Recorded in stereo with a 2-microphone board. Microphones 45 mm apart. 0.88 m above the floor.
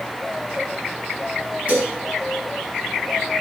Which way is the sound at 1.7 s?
25° right (ahead or behind).